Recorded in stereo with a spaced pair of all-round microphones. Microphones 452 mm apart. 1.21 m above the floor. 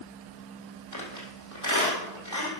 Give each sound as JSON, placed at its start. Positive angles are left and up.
{"t": 0.9, "sound": "a squeak", "side_deg": 40, "distance_m": 3.5}